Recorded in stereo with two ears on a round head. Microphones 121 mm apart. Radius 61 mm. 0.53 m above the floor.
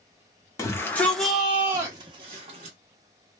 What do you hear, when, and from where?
0.6 s a shout: 25° left (ahead or behind), 1.0 m; by 2.8 s 50° right (ahead or behind), 1.1 m